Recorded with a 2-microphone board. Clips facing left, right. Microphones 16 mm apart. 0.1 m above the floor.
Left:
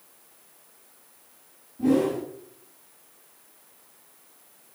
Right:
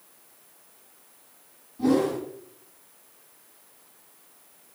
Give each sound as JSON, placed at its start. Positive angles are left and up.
{"t": 1.8, "sound": "a whoosh", "side_deg": -70, "distance_m": 4.0}